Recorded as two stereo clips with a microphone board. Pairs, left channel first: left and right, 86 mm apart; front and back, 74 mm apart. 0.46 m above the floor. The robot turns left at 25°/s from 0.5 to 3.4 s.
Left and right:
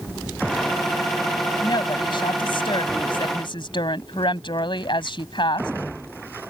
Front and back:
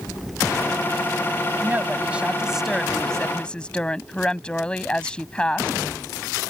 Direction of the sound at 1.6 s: 120° left.